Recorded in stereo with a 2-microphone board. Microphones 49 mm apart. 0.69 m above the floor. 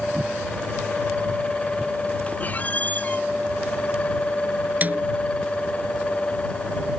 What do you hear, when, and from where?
2.4 s a squeak: 35° left (ahead or behind)
4.8 s a snare drum: 35° right (ahead or behind)